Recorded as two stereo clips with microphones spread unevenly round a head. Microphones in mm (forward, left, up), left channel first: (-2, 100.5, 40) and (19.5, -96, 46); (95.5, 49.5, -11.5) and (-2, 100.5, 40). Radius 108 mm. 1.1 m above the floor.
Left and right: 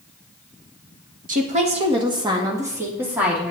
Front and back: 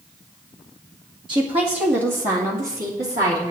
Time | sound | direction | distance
1.3 | a woman speaking | 135° right | 1.5 m